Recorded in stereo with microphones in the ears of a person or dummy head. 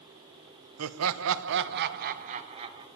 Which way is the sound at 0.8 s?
75° right (ahead or behind).